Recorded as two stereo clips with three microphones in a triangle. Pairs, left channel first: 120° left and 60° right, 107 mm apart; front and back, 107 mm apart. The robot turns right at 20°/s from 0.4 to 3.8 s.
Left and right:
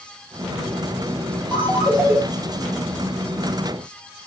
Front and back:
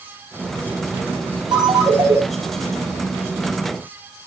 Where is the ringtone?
135° right, 2.5 m; by 2.2 s 120° right, 2.5 m.